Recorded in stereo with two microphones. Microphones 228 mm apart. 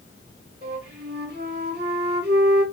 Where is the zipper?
No zipper in this recording.